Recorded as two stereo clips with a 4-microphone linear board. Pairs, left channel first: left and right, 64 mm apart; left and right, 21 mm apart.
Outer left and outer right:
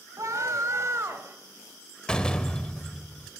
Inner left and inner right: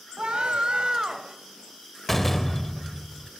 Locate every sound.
0.2 s a scream: 55° right (ahead or behind), 2 m; by 1.4 s 40° right (ahead or behind), 1.6 m
2.1 s a door slam: 10° left (ahead or behind), 0.7 m